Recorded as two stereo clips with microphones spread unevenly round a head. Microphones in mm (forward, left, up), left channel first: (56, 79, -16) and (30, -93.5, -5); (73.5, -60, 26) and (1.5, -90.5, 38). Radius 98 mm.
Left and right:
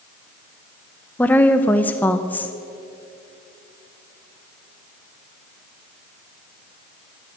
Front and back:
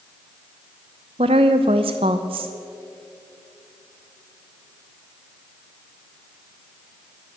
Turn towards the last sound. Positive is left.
turn(degrees=165)